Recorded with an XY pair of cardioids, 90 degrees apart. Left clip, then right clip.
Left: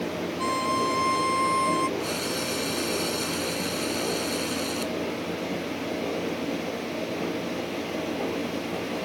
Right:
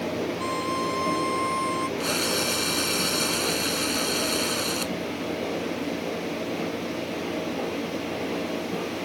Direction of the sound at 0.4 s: 30° left.